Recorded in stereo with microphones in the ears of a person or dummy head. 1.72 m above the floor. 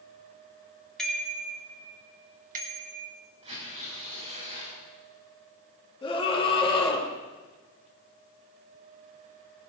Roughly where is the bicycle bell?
Centre.